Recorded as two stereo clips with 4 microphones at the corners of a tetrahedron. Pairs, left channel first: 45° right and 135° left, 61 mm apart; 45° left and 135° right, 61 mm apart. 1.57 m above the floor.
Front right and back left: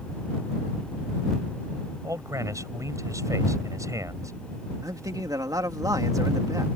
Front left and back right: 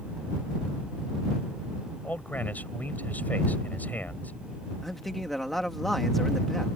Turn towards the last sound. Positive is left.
turn(degrees=130)